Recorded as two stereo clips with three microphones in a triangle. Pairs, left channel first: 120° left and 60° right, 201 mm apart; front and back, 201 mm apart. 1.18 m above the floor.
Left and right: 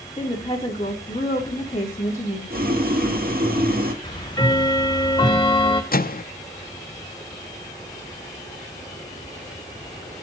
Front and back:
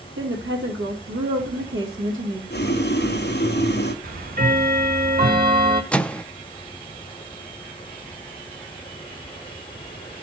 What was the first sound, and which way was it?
A woman speaking, 170° right.